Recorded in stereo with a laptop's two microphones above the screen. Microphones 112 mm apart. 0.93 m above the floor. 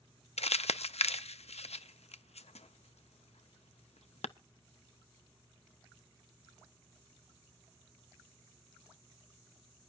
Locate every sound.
0.4 s crumpling: 75° left (ahead or behind), 0.5 m